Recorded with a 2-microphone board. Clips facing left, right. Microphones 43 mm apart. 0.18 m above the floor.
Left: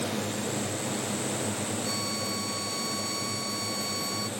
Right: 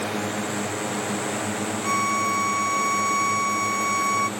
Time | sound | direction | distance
0.0 | a drone | 45° right (ahead or behind) | ?
1.8 | a violin | 60° right (ahead or behind) | ?